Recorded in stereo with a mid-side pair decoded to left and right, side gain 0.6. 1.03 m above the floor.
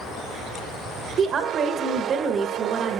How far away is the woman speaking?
About 1.2 m.